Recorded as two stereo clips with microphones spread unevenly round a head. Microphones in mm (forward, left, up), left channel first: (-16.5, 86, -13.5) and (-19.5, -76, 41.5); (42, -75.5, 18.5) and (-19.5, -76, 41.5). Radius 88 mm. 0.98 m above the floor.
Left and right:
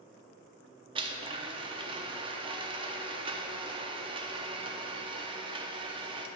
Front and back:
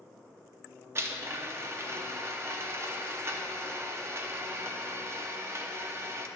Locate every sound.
0.9 s a blender: 145° right, 0.7 m